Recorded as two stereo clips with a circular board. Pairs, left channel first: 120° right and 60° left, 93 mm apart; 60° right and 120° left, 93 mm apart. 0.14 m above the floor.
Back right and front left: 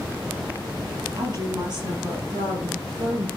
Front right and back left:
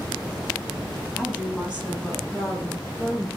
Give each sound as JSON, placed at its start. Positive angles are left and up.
{"t": 1.2, "sound": "a woman speaking", "azimuth_deg": 40, "distance_m": 3.0}